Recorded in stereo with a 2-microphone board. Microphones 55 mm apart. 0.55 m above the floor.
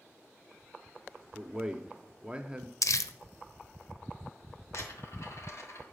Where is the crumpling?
80° left, 0.5 m.